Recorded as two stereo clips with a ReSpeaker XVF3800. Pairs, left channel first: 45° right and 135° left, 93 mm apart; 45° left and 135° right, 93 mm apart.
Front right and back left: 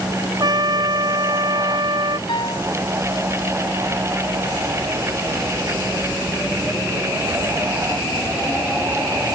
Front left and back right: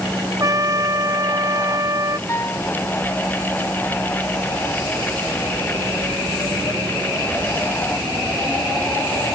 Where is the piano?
15° right.